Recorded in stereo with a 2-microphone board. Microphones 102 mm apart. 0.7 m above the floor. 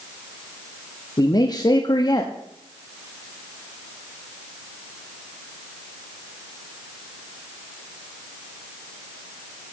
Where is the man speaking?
40° left (ahead or behind), 1.0 m.